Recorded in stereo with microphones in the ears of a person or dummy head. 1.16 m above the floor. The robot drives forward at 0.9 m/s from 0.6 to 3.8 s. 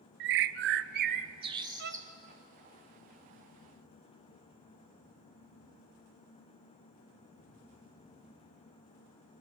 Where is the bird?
55° right (ahead or behind), 0.5 m; by 2.1 s 20° right (ahead or behind), 1.3 m.